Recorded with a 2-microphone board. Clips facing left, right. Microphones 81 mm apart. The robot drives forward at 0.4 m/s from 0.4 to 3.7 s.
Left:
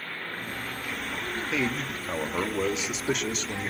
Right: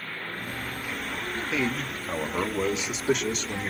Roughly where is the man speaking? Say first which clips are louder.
Right 1 dB; centre.